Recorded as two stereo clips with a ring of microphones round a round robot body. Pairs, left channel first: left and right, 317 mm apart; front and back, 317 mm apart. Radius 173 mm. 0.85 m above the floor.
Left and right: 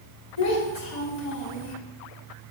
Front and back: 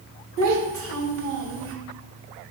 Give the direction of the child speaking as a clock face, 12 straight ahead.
8 o'clock.